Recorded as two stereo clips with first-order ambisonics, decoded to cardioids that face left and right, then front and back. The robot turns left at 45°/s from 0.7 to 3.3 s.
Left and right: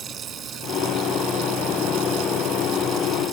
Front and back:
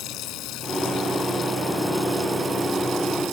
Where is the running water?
35° right; by 3.3 s 150° right.